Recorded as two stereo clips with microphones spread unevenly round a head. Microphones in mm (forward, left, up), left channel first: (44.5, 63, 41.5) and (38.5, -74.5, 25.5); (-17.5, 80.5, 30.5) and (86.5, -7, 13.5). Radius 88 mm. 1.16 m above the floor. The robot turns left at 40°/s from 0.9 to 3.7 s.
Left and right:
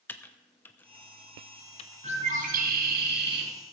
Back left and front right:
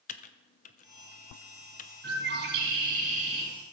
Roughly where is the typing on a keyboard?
Behind.